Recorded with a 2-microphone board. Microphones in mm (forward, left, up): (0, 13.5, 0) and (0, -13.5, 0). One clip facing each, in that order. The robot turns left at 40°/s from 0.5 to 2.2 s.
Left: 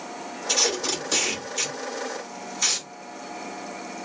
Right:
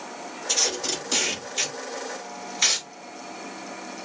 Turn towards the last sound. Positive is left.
turn(degrees=-30)  # may be behind; listen again after turning